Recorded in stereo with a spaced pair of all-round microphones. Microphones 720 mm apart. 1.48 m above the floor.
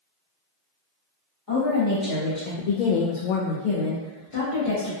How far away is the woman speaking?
About 1.0 m.